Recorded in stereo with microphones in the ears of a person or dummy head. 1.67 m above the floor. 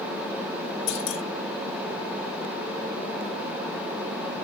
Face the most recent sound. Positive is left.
turn(degrees=70)  # may be behind; listen again after turning